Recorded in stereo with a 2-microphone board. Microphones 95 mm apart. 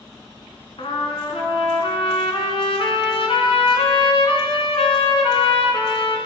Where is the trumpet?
80° left, 0.9 m.